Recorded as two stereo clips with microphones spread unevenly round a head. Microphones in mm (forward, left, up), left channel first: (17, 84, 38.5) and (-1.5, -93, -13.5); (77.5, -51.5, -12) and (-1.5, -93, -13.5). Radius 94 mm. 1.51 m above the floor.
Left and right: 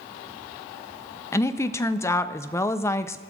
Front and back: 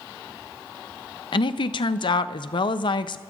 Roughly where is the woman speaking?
Ahead.